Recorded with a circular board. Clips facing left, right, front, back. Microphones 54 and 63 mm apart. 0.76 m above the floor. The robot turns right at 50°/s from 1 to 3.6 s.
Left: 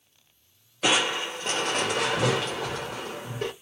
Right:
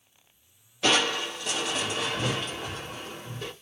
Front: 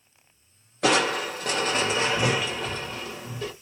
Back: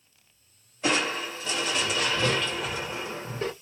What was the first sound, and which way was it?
Crushing, 10° left.